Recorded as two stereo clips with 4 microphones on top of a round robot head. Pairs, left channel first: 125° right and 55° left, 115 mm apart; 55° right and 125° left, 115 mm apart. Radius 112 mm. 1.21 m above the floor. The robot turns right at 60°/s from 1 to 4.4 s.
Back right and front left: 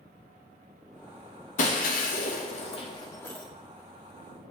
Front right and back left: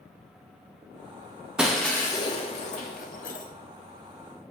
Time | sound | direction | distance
1.6 | breaking glass | 150° right | 0.7 m